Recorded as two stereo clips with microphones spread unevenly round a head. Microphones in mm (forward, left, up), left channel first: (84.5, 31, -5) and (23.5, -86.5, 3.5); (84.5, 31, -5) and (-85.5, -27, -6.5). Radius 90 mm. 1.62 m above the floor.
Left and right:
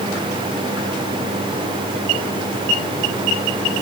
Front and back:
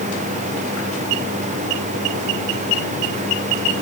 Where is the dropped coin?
I don't hear a dropped coin.